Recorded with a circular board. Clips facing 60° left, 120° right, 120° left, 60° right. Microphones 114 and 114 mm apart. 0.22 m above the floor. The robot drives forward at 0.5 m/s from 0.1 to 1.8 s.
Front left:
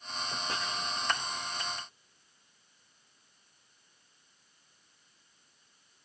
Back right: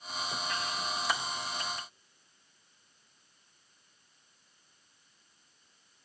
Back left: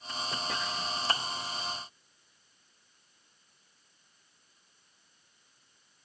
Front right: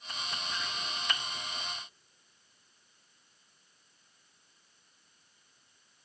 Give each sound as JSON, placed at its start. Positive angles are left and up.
{"t": 0.5, "sound": "chopping", "azimuth_deg": 115, "distance_m": 6.0}